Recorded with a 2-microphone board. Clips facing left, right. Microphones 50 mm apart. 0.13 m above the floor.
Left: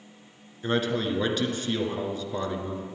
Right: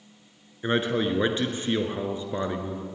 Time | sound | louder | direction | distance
0.6 | a man speaking | right 2 dB | 25° right (ahead or behind) | 1.5 m